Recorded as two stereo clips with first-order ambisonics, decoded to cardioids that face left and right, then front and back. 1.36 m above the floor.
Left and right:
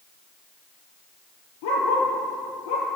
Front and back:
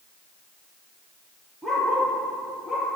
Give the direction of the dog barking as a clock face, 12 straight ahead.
9 o'clock.